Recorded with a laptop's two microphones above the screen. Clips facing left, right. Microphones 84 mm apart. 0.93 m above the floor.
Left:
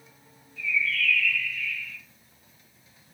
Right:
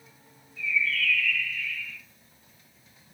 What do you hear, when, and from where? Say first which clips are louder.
0.6 s a bird: even; 45° right (ahead or behind), 1.1 m